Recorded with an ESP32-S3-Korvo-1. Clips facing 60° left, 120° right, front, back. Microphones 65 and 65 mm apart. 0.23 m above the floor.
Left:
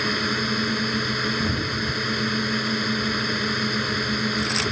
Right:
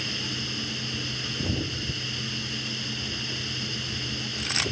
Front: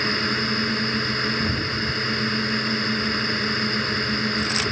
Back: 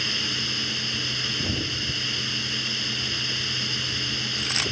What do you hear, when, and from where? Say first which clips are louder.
0.0 s a drone: left 10 dB, front 7 dB; 40° left